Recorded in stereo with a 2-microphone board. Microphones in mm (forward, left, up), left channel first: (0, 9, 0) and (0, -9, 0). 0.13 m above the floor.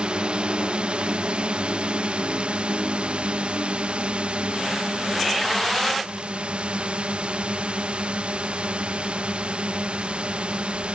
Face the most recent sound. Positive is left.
turn(degrees=-85)